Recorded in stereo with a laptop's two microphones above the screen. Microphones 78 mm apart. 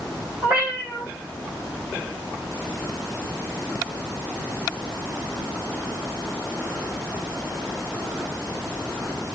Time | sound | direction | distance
0.4 | a cat meowing | 15° right (ahead or behind) | 1.5 m